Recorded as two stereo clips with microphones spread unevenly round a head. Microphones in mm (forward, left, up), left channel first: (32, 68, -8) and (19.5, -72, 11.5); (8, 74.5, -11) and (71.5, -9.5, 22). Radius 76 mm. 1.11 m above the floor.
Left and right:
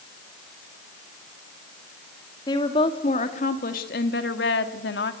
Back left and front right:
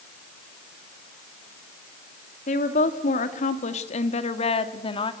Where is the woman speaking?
150° left, 2 m; by 5.1 s 90° left, 2.0 m.